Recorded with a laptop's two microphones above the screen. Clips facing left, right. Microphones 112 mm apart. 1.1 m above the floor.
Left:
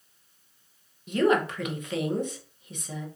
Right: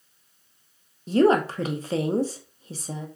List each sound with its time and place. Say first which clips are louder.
1.1 s a woman speaking: right 4 dB; 35° right (ahead or behind), 0.6 m